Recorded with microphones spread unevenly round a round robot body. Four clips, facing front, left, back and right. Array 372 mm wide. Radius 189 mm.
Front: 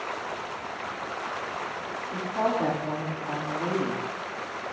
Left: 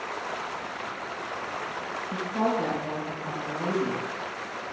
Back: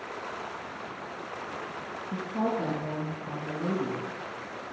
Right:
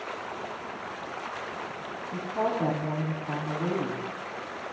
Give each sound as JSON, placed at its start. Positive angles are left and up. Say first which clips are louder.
{"t": 2.1, "sound": "a woman speaking", "louder": "left 2 dB, front 3 dB", "azimuth_deg": 145, "distance_m": 8.0}